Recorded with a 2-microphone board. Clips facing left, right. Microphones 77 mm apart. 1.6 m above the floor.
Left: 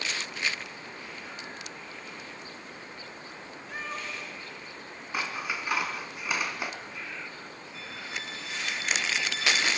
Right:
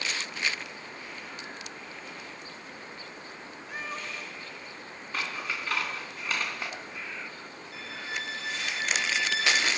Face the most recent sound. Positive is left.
turn(degrees=-85)